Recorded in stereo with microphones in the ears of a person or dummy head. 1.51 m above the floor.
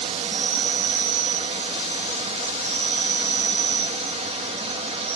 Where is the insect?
35° right (ahead or behind), 1.5 m.